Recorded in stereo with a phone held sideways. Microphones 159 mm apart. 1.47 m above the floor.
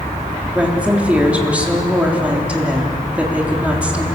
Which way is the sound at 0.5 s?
10° right (ahead or behind).